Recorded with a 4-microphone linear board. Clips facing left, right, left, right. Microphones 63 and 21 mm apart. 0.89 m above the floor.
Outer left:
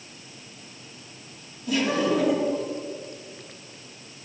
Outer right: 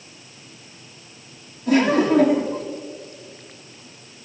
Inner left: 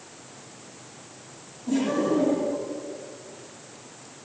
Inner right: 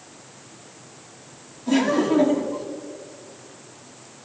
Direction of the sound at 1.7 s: 60° right (ahead or behind).